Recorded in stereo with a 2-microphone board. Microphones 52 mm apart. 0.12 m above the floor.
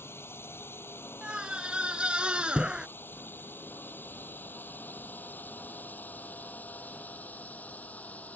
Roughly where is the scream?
Right.